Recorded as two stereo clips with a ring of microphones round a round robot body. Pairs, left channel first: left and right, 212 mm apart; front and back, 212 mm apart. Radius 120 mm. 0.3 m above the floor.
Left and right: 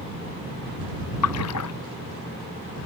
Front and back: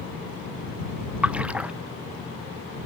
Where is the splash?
95° left.